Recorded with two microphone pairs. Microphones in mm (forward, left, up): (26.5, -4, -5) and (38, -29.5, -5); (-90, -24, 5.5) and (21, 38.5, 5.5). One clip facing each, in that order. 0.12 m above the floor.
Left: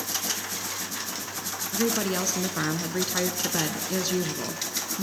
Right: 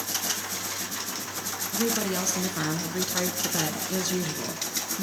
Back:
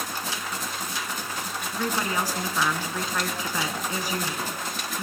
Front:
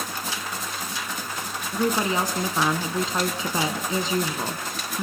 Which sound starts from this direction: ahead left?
A woman speaking, at 1.7 s.